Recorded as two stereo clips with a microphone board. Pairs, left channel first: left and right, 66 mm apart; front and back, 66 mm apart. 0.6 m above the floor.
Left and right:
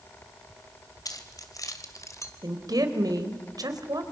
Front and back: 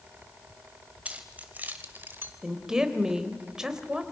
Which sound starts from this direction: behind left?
Keys jangling, at 1.1 s.